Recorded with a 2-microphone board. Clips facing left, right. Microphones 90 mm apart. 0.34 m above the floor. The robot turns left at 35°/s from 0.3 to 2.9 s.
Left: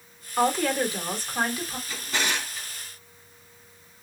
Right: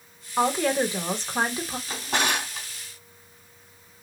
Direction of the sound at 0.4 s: 15° right.